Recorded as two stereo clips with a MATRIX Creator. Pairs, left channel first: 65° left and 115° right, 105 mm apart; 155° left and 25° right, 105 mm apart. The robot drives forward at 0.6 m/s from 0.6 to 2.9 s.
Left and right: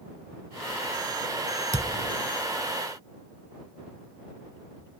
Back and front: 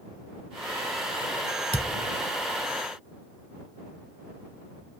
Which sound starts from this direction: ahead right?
A thud, at 1.7 s.